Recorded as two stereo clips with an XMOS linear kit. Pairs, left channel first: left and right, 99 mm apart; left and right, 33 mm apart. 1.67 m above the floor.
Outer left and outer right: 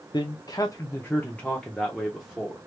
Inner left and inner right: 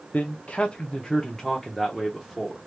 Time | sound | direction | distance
0.1 | a man speaking | 45° left (ahead or behind) | 0.6 m